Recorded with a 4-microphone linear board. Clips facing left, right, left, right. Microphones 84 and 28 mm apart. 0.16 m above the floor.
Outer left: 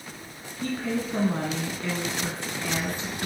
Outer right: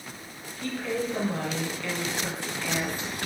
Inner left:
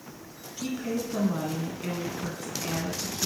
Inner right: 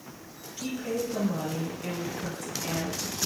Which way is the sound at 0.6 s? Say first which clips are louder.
Outer left 1 dB, even; 25° left (ahead or behind).